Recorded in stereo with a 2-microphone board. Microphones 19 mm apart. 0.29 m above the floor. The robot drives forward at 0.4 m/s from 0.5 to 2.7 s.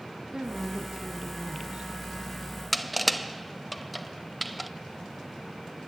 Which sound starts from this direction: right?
A woman speaking, at 0.3 s.